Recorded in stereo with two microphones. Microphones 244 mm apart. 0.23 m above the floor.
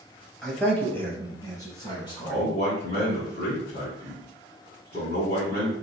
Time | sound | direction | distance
0.4 | a man speaking | centre (ahead or behind) | 1.1 m
2.2 | a man speaking | 40° left (ahead or behind) | 1.7 m